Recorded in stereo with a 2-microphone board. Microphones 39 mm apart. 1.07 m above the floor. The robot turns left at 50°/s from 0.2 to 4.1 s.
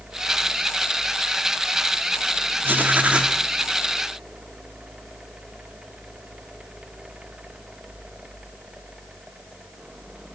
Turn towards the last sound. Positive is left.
turn(degrees=165)